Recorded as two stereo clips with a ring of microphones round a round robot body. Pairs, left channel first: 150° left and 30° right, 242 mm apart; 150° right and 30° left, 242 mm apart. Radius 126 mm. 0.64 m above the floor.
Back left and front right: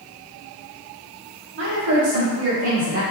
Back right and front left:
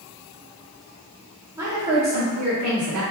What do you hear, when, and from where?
1.6 s a woman speaking: 45° right, 1.2 m; by 3.0 s 10° right, 1.8 m